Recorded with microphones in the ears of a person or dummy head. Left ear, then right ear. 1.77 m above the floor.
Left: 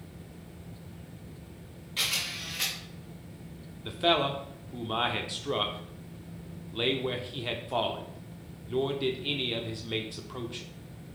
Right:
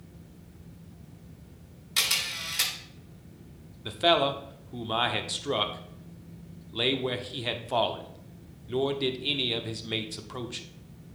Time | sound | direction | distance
2.0 | a camera shutter | 60° right (ahead or behind) | 2 m
3.9 | a man speaking | 15° right (ahead or behind) | 0.7 m